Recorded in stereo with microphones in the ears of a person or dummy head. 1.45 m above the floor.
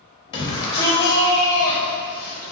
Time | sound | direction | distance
0.3 | a shout | 25° left (ahead or behind) | 2.5 m